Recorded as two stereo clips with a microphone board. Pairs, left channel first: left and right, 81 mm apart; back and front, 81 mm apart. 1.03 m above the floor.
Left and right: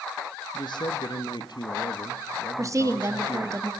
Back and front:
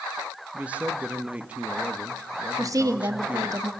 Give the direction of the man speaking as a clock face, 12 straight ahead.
10 o'clock.